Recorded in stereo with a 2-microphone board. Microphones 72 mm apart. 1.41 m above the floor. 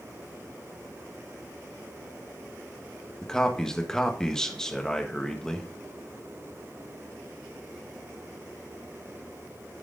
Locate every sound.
3.2 s a man speaking: 10° left (ahead or behind), 1.5 m